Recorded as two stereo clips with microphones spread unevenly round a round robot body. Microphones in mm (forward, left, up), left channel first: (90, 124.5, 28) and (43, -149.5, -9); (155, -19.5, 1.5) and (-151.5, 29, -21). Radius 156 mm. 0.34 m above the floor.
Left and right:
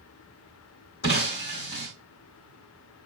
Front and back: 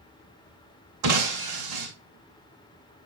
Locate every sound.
1.0 s breaking glass: 140° left, 2.5 m